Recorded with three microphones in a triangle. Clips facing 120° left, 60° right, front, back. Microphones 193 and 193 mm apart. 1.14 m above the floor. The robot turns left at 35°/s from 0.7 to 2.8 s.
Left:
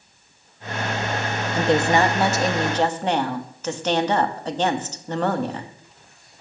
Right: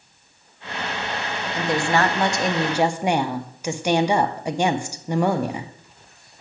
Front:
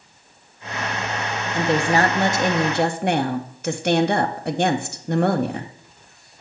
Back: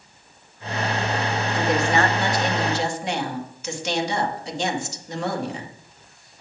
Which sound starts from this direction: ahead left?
A woman speaking, at 1.5 s.